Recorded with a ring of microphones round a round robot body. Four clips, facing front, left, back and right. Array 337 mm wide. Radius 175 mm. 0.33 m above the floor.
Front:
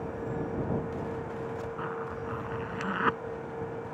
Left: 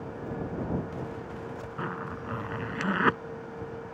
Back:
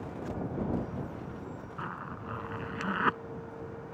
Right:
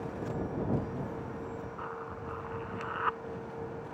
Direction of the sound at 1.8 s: 90° left.